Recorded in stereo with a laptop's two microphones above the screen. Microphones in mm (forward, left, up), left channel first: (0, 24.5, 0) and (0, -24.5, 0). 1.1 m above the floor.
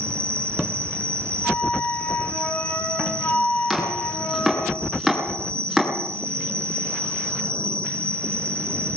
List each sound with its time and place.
0.0 s an insect: 50° right (ahead or behind), 1.4 m
1.4 s a flute: 40° left (ahead or behind), 4 m
3.7 s chopping: centre (ahead or behind), 9 m